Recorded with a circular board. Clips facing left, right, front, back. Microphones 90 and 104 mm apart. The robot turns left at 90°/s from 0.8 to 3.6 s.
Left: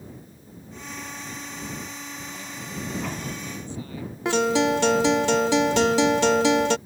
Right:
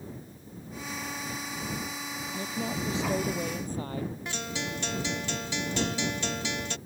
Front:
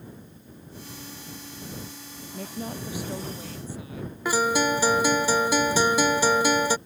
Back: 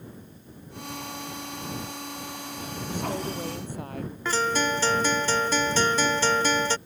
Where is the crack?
I don't hear a crack.